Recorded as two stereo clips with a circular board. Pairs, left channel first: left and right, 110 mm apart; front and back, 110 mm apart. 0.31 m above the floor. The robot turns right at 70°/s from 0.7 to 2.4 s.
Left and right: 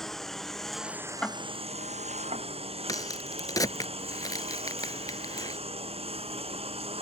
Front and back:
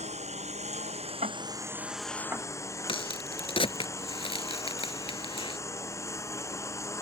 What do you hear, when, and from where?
0.0 s a lawn mower: 175° left; by 7.0 s 65° right
1.2 s ticking: 170° left; by 2.5 s 105° right
2.9 s a crack: 35° left